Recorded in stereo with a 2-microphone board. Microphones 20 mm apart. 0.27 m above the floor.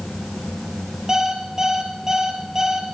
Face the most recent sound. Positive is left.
turn(degrees=-25)  # may be behind; listen again after turning